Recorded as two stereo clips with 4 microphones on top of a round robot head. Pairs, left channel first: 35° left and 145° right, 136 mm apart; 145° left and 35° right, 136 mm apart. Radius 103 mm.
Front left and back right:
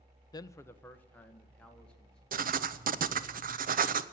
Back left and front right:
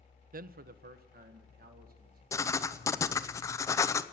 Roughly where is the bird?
I don't hear a bird.